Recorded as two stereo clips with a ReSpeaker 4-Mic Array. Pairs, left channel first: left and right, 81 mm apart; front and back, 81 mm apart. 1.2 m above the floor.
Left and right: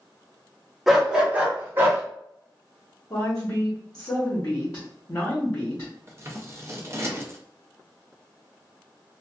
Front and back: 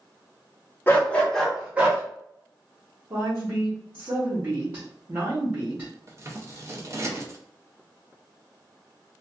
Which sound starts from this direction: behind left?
A woman speaking, at 3.1 s.